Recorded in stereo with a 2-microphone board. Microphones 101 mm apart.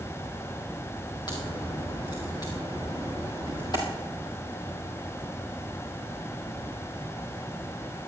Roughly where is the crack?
Left.